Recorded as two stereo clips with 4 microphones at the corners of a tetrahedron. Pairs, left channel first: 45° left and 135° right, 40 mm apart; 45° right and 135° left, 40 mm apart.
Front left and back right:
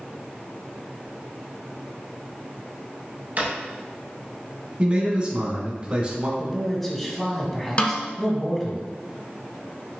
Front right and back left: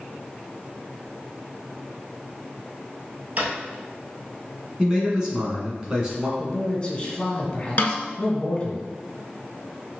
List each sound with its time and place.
3.4 s a drawer: straight behind, 1.3 m
4.8 s a man speaking: 170° right, 1.3 m
6.4 s a man speaking: 30° right, 1.0 m
7.8 s a snare drum: 5° right, 0.7 m